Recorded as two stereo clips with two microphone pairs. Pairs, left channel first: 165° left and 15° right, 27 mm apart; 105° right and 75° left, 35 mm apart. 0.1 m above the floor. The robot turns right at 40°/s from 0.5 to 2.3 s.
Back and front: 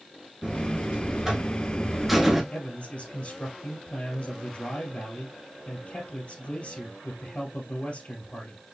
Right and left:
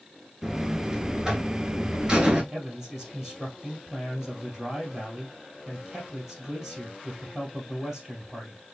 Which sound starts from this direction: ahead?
A buzzer, at 0.4 s.